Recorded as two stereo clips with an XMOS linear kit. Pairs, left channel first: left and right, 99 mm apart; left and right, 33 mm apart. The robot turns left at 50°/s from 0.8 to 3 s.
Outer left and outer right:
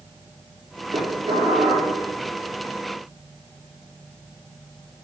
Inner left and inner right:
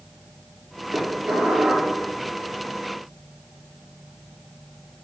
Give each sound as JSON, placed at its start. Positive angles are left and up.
{"t": 0.9, "sound": "dishes clattering", "azimuth_deg": -110, "distance_m": 7.0}